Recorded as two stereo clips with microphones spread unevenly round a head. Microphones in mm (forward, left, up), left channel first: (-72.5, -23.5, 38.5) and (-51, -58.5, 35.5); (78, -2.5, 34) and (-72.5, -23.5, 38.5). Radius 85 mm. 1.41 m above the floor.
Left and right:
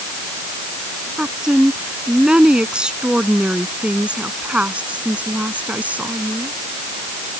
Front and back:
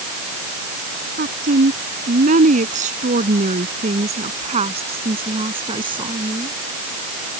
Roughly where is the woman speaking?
Behind right.